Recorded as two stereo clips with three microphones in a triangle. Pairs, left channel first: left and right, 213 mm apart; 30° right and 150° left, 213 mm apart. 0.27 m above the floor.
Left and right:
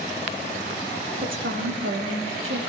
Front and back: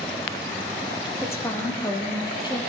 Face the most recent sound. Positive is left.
turn(degrees=-100)